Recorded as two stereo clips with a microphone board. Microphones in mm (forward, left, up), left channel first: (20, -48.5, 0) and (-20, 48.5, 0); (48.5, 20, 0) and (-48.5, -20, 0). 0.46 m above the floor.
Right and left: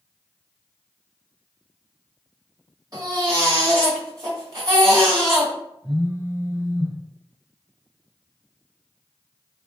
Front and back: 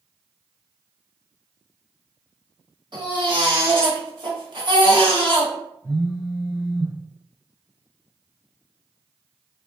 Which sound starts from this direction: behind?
A baby crying, at 2.9 s.